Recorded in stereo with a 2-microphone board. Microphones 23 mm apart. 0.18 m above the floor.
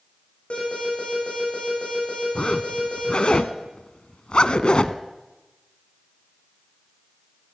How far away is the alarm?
About 7.5 m.